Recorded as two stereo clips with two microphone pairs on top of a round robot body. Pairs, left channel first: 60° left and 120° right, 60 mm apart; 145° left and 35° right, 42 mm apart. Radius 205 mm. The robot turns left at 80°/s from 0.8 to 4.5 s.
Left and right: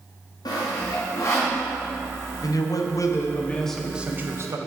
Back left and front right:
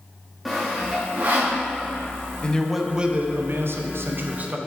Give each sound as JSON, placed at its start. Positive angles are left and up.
{"t": 0.5, "sound": "sawing", "azimuth_deg": 55, "distance_m": 0.5}
{"t": 2.4, "sound": "a man speaking", "azimuth_deg": 80, "distance_m": 0.8}